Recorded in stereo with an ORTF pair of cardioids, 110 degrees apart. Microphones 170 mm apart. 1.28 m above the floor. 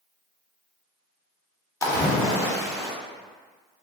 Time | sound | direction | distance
1.8 | a splash | 20° left | 0.7 m